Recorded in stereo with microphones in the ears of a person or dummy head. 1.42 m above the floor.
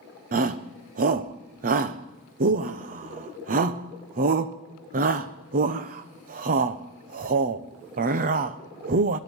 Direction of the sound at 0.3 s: 40° right (ahead or behind).